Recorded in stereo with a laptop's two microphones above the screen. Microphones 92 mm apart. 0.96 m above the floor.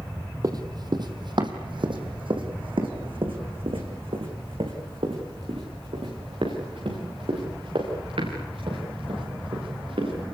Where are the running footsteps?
45° right (ahead or behind), 1.9 m; by 10.3 s 85° right, 9 m.